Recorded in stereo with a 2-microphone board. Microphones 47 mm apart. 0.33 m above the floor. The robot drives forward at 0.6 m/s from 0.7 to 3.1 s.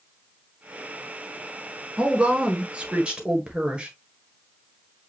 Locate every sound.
2.0 s a woman speaking: 25° right (ahead or behind), 1.4 m